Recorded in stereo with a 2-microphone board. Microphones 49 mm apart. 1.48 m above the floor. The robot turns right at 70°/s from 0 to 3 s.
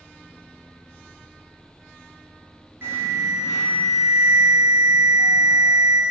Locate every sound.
2.8 s an alarm: 55° right (ahead or behind), 1.8 m; by 6.0 s 60° right (ahead or behind), 1.8 m